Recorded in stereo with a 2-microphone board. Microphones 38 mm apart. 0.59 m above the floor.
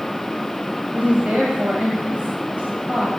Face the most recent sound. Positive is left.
turn(degrees=-40)  # may be behind; listen again after turning